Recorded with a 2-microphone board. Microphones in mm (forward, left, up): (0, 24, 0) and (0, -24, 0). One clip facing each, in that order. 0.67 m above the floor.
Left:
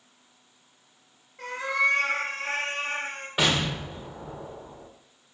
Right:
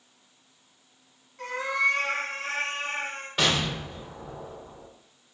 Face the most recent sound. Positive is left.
turn(degrees=15)  # may be behind; listen again after turning